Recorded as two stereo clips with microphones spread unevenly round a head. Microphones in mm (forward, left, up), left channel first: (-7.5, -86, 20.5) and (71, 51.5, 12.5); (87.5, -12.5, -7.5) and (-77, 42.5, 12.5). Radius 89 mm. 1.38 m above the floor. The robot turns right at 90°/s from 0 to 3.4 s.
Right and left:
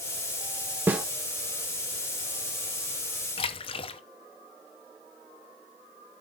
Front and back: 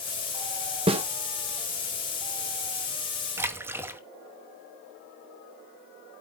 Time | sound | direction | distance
0.9 | a snare drum | 140° left | 1.1 m
3.4 | a splash | 145° right | 0.8 m